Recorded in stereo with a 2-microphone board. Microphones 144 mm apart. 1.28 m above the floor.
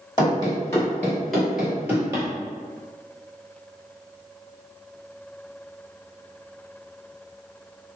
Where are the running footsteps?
30° left (ahead or behind), 1.6 m; by 2.3 s 25° right (ahead or behind), 1.4 m.